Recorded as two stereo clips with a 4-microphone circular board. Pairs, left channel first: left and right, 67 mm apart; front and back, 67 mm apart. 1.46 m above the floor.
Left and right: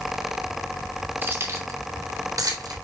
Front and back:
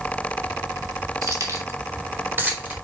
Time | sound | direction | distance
1.2 | keys jangling | 150° right | 3 m